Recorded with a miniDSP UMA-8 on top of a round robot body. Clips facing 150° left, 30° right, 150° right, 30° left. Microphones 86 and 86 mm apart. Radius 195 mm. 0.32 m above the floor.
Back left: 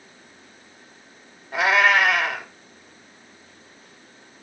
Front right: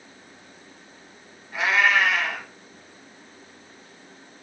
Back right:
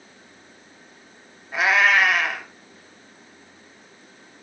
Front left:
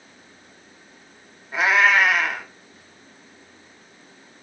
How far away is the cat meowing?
About 0.7 m.